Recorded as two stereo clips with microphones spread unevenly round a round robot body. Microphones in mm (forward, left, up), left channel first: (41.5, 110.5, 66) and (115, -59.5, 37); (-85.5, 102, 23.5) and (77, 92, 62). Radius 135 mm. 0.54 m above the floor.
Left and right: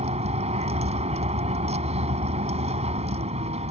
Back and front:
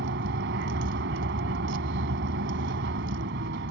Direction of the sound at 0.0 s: 10° right.